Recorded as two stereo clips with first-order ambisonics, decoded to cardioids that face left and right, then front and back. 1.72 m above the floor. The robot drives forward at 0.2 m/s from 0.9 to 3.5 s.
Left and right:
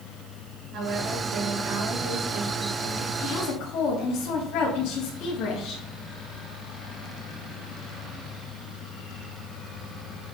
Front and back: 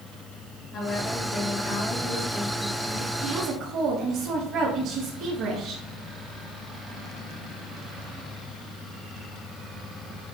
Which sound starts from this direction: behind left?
A woman speaking, at 3.2 s.